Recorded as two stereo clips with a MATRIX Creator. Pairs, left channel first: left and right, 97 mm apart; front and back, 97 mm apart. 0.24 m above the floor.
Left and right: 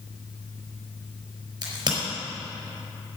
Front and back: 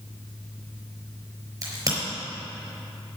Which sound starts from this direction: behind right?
A crack, at 1.6 s.